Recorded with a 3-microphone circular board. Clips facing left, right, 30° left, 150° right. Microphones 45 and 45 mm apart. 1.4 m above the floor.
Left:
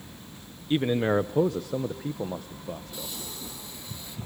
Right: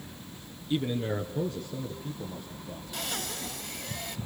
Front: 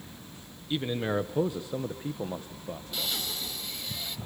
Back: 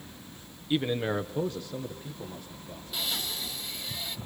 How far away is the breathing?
About 4.5 m.